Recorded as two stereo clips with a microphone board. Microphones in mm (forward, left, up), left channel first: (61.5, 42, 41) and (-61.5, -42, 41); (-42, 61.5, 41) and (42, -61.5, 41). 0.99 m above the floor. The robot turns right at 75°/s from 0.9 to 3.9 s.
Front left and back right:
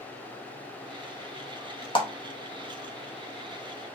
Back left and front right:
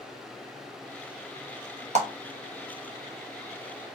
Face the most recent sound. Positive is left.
turn(degrees=125)